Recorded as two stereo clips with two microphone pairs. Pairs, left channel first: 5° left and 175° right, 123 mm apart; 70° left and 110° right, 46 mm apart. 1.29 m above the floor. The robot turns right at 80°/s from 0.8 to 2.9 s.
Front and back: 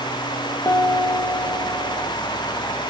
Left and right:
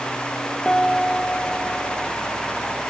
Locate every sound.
0.7 s a piano: 25° left, 1.1 m; by 2.1 s 125° left, 1.1 m